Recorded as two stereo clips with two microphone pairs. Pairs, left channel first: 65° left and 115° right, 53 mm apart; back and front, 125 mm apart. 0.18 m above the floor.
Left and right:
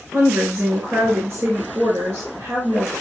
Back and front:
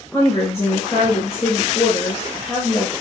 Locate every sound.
0.1 s a woman speaking: 120° right, 2 m